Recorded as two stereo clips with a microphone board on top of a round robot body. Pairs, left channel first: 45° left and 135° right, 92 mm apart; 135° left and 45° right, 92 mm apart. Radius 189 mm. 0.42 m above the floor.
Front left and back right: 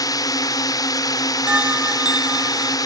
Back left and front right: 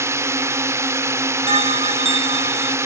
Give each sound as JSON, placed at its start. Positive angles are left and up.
{"t": 0.0, "sound": "a drone", "azimuth_deg": 10}
{"t": 1.5, "sound": "a bell", "azimuth_deg": -55}